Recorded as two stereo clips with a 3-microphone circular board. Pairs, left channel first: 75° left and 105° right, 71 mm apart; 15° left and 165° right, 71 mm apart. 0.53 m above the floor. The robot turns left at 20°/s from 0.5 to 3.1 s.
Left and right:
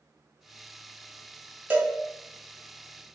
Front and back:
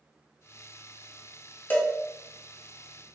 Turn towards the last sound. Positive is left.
turn(degrees=-75)